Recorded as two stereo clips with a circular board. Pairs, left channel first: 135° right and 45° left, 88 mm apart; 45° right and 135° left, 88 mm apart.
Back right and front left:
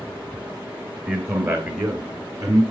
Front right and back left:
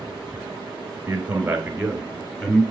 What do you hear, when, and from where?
1.1 s a man speaking: 80° left, 1.5 m; by 2.6 s 50° left, 2 m